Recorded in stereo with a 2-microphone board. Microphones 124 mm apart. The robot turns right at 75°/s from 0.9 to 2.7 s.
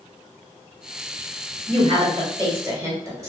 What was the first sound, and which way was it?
A woman speaking, 120° right.